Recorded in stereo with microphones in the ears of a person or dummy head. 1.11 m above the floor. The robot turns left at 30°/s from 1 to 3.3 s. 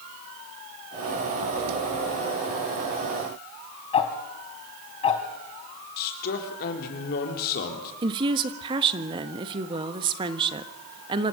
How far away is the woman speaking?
About 1.3 m.